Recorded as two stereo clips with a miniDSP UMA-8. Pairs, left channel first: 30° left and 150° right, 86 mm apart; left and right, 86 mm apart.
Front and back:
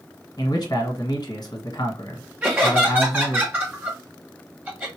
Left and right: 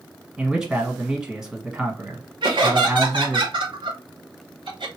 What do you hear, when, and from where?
0.4 s a man speaking: 10° right, 1.3 m
2.4 s laughter: 80° right, 0.7 m